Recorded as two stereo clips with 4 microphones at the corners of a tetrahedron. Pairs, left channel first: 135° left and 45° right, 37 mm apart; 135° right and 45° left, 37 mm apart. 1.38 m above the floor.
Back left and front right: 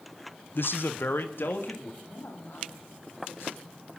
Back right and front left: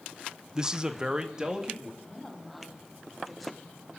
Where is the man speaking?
115° left, 0.5 m.